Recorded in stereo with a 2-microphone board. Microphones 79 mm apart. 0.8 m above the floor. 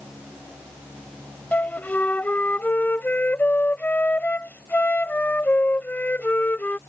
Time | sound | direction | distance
1.5 | a flute | 20° left (ahead or behind) | ?